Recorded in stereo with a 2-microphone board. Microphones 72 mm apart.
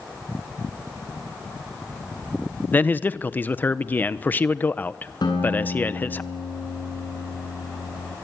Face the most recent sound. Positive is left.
turn(degrees=85)